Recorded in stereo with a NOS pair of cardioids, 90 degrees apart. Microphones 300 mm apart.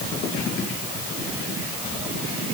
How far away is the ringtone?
I don't hear a ringtone.